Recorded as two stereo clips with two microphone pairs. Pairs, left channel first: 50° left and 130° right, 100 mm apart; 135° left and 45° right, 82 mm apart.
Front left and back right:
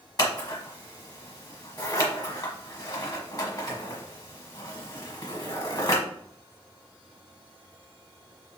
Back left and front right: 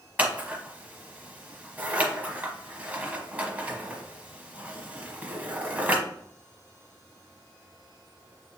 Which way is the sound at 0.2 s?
15° left.